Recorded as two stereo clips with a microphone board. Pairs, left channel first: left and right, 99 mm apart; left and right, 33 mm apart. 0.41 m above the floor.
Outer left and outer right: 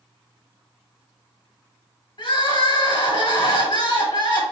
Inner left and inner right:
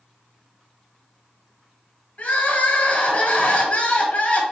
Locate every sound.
2.2 s crying: 55° left (ahead or behind), 1.4 m